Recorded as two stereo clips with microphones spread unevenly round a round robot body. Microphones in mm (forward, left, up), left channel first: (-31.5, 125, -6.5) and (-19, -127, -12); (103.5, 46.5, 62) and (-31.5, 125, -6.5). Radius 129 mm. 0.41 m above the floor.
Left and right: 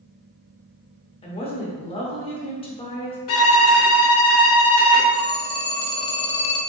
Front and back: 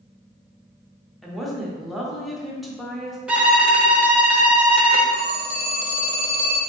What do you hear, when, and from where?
1.2 s a woman speaking: 135° left, 0.8 m
3.3 s a violin: 95° left, 0.9 m
5.1 s a phone ringing: 120° left, 0.7 m